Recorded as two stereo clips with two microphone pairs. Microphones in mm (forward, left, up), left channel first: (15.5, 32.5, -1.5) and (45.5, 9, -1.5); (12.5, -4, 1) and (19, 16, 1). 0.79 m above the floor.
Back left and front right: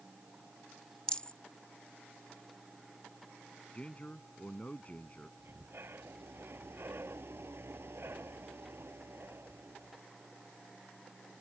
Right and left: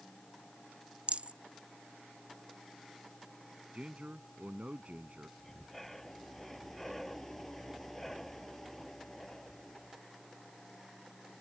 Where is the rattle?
80° left.